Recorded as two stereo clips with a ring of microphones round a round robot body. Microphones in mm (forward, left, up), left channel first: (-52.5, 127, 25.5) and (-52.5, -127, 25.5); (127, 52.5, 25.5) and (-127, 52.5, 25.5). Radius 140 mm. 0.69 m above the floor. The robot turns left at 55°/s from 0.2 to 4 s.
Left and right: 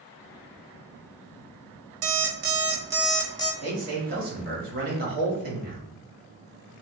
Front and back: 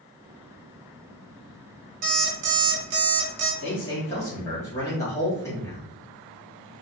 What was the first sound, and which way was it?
An alarm clock, 120° right.